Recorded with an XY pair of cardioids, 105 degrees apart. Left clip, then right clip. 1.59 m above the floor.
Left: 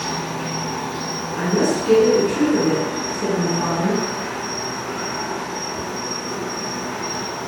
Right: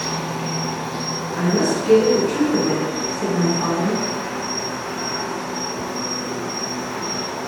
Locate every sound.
0.0 s an insect: 45° right, 0.8 m
1.4 s a woman speaking: 25° right, 1.4 m